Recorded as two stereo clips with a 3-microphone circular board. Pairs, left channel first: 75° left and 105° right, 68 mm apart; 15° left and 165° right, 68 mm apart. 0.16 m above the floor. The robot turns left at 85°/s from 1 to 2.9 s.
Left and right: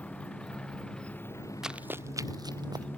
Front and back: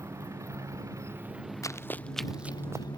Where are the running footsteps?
20° right; by 2.9 s 125° right.